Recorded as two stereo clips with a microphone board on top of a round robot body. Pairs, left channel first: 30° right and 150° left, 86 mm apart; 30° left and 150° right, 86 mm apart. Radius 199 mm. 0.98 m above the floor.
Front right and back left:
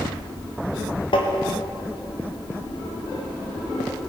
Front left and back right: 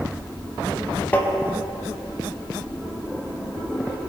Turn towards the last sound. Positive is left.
turn(degrees=-35)